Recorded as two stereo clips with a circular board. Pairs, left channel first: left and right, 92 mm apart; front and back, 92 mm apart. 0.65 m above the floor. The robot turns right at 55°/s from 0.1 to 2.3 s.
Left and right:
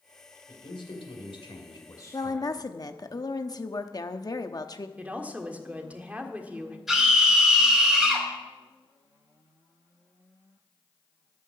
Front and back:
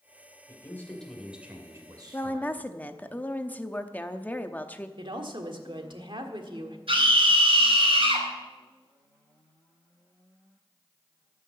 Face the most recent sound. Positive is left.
turn(degrees=180)